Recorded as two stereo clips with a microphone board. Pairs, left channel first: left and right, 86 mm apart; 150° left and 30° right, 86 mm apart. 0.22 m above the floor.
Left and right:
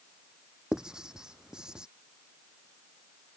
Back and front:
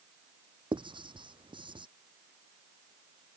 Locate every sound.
0.7 s writing: 10° right